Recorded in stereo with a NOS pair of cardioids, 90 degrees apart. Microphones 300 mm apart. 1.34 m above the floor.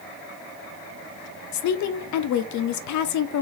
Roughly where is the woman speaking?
Ahead left.